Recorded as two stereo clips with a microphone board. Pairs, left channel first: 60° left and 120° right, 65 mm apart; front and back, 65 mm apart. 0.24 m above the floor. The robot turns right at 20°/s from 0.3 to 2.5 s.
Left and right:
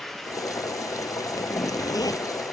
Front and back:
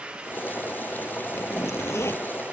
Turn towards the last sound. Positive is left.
turn(degrees=55)